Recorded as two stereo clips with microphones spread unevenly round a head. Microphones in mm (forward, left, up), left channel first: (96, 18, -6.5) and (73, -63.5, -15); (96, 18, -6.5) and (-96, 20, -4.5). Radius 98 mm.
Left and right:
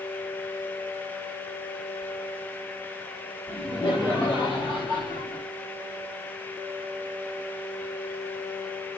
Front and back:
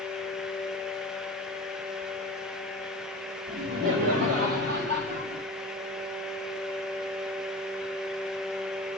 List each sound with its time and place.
3.5 s laughter: 160° left, 4 m; by 5.4 s 165° right, 3 m